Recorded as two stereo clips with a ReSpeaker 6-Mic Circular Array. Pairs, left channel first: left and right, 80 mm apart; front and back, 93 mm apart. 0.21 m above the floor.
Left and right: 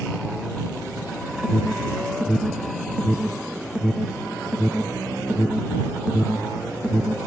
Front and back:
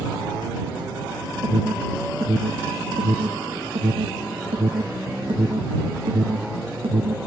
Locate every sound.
1.4 s an alarm: 170° right